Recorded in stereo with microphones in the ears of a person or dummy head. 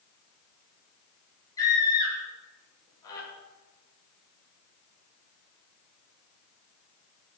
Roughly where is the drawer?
No drawer in this recording.